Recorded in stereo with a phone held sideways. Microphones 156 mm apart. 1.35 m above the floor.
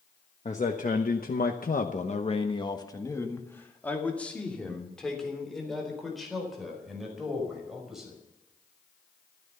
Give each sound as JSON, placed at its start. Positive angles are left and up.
{"t": 0.5, "sound": "a man speaking", "side_deg": 50, "distance_m": 1.3}